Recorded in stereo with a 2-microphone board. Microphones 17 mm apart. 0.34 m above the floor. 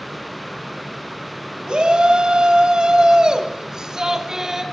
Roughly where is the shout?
Right.